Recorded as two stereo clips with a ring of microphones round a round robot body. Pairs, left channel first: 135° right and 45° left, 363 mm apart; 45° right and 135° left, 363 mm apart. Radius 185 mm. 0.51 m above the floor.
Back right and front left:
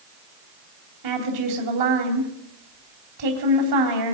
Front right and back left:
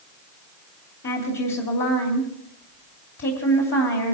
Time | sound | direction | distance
1.0 | a woman speaking | 15° left | 3 m